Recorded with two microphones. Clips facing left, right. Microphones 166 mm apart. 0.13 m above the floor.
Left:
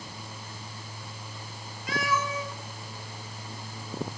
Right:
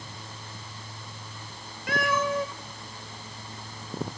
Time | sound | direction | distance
1.9 | a cat meowing | 60° right (ahead or behind) | 1.3 m